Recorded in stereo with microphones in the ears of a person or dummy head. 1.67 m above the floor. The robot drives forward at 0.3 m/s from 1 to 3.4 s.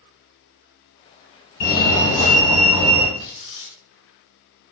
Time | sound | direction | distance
1.6 | a fire alarm | 65° left (ahead or behind) | 1.5 m
3.2 | tearing paper | 65° left (ahead or behind) | 1.1 m